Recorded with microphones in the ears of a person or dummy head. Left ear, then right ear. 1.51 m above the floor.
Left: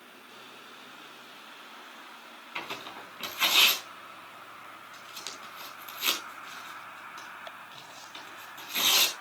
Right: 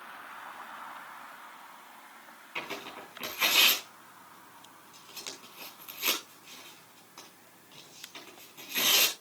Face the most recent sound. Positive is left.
turn(degrees=15)  # may be behind; listen again after turning